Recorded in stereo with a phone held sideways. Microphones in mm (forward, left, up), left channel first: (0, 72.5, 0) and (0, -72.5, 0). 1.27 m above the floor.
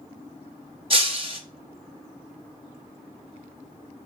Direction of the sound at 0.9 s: 40° right (ahead or behind).